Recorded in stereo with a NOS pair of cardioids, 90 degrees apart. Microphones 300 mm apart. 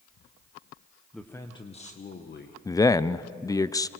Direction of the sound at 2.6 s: 10° left.